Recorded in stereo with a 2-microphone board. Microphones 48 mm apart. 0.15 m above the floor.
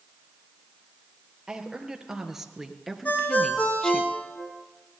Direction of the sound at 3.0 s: 35° left (ahead or behind).